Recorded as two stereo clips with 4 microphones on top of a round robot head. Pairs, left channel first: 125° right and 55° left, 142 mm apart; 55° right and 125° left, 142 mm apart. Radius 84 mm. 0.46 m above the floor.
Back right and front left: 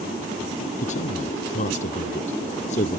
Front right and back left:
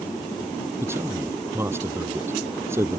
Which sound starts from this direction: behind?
A man speaking, at 0.8 s.